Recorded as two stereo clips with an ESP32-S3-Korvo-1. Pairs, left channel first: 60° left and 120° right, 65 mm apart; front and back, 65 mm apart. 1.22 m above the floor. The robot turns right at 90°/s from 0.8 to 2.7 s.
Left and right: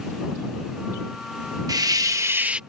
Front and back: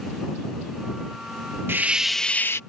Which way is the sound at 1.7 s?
125° right.